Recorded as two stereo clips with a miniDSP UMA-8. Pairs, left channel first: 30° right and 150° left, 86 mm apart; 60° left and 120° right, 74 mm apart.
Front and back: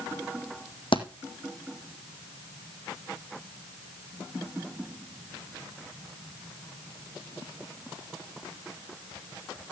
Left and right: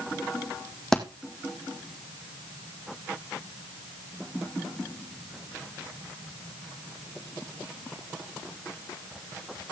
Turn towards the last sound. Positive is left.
turn(degrees=-25)